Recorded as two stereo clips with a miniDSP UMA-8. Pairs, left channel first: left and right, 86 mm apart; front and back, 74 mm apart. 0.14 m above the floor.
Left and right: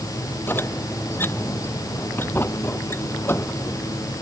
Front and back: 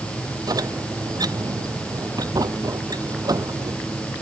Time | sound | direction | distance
0.5 | a squeak | 155° left | ?